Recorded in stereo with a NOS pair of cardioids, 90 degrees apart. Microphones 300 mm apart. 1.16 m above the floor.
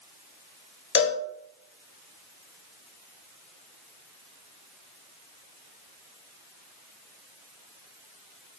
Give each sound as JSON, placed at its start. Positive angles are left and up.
{"t": 0.9, "sound": "a cowbell", "azimuth_deg": 45, "distance_m": 0.5}